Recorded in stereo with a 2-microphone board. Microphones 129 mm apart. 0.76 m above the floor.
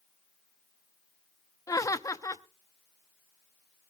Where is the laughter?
25° left (ahead or behind), 0.9 m.